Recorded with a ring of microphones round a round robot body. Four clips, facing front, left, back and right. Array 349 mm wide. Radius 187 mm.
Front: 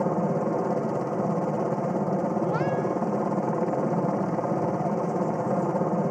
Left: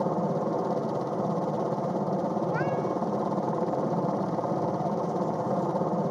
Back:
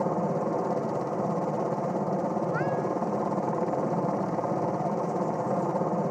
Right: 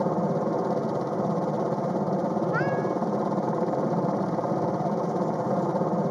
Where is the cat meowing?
25° right.